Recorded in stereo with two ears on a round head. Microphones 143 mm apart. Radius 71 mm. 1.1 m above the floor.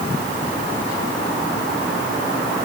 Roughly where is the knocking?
I don't hear knocking.